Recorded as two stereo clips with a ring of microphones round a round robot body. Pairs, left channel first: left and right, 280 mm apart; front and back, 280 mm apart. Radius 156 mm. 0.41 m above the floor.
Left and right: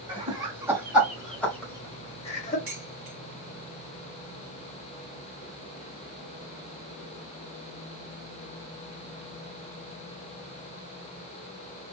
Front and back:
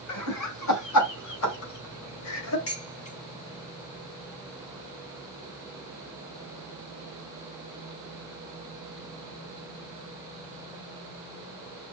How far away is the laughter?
About 3 m.